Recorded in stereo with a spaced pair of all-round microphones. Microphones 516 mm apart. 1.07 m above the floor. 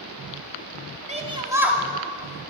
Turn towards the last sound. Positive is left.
turn(degrees=15)  # may be behind; listen again after turning